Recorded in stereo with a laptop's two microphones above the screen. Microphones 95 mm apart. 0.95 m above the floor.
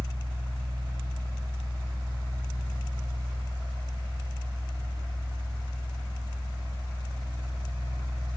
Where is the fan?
35° right (ahead or behind), 1.1 m.